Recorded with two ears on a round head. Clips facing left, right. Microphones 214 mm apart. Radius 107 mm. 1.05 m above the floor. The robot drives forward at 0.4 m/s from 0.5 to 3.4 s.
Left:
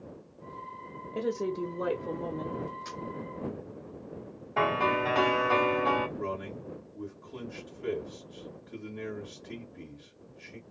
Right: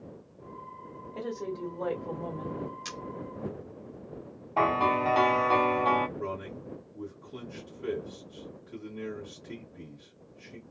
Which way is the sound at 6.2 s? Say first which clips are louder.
Left 1 dB; 10° right (ahead or behind).